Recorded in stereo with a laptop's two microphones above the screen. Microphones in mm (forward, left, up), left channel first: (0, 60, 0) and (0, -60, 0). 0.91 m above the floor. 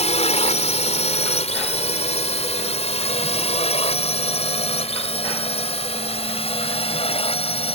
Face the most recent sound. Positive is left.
turn(degrees=55)  # may be behind; listen again after turning